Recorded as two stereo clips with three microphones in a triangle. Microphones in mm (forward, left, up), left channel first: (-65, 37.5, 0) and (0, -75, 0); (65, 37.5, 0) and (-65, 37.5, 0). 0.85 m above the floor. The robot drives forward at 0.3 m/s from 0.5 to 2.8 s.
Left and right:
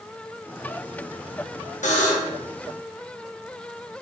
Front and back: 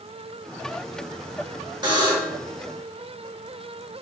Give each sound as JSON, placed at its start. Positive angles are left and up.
{"t": 1.8, "sound": "a buzzer", "azimuth_deg": 125, "distance_m": 1.1}